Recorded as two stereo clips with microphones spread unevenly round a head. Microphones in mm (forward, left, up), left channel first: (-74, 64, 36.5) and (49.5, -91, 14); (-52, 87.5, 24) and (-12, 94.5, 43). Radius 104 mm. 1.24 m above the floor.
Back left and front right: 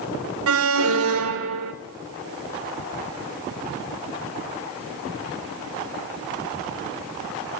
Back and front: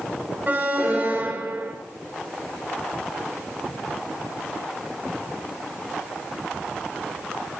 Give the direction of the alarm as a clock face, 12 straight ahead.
2 o'clock.